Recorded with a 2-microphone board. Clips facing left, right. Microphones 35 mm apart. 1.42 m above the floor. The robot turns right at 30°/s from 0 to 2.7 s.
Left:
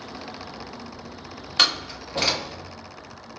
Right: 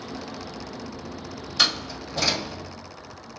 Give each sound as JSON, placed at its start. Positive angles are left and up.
{"t": 1.6, "sound": "a door slam", "side_deg": 60, "distance_m": 1.4}